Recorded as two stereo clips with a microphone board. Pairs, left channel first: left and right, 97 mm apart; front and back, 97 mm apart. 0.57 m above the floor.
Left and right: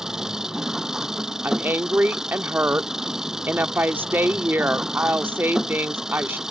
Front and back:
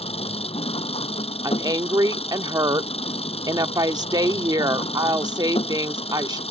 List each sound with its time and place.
0.0 s an engine running: 5° right
1.4 s a woman speaking: 150° right